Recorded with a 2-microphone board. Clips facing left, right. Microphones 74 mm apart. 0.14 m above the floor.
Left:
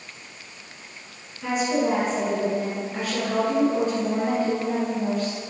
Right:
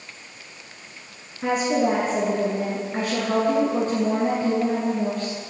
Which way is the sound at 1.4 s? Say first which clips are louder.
Right 2 dB; 45° right (ahead or behind).